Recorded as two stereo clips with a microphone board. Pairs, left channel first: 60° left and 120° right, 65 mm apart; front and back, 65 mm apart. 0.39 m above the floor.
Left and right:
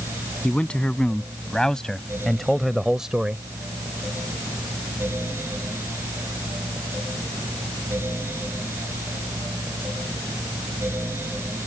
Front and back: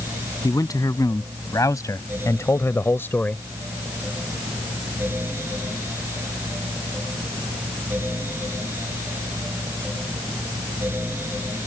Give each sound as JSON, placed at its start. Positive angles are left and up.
{"t": 0.4, "sound": "a man speaking", "azimuth_deg": -10}